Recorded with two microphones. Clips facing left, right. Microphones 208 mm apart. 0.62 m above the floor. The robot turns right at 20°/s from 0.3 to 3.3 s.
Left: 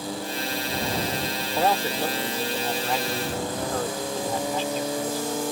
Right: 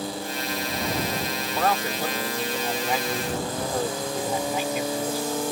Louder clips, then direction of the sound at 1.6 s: Left 2 dB; 160° left.